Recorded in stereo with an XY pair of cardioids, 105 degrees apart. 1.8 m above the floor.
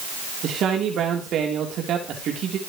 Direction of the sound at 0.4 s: 65° right.